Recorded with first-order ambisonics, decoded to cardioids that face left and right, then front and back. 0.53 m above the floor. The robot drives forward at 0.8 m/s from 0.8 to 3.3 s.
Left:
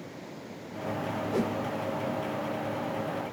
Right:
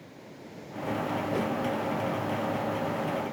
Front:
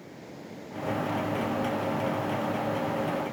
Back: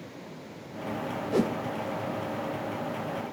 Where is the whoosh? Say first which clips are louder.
Left 1 dB, back 3 dB; 170° left, 0.9 m.